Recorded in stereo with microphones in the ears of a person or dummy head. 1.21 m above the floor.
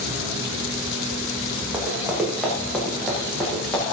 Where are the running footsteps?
10° right (ahead or behind), 5 m; by 3.8 s 5° left (ahead or behind), 8 m.